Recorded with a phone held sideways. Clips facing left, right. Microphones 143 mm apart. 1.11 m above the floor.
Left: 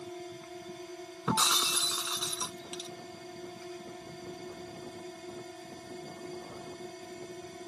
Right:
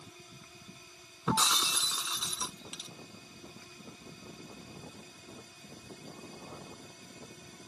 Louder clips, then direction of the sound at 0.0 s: Left 12 dB; 65° left (ahead or behind).